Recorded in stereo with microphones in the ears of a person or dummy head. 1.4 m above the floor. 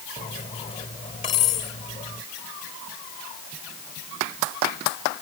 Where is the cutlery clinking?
25° left (ahead or behind).